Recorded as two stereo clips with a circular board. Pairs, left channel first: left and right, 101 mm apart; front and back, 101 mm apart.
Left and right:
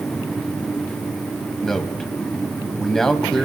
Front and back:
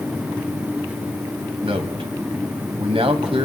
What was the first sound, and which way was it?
A man speaking, 175° left.